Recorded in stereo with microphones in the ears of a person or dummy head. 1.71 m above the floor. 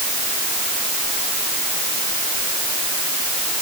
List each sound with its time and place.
Only background noise.